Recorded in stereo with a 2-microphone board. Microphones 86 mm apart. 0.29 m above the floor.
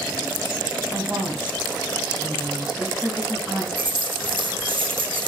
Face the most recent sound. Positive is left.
turn(degrees=-75)  # may be behind; listen again after turning